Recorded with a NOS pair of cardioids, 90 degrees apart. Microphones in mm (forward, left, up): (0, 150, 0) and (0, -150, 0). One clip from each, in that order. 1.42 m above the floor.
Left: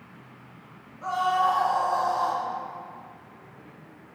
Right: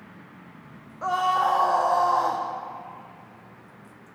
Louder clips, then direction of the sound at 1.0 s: Right 1 dB; 55° right.